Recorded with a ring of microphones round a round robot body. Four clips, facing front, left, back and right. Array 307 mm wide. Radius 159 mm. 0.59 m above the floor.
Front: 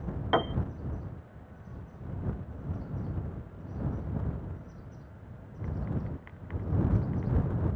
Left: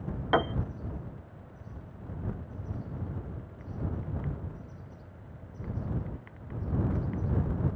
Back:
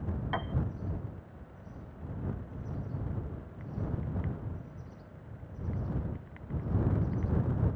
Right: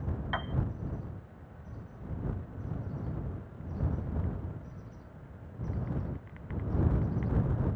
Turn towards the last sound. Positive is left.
turn(degrees=55)